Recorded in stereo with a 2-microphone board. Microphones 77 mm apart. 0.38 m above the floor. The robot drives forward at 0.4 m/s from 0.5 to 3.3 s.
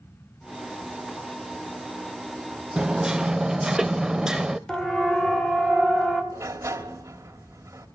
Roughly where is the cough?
No cough in this recording.